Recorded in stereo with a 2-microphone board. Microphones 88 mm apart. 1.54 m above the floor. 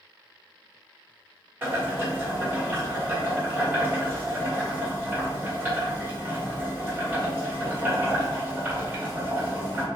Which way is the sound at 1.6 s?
25° right (ahead or behind).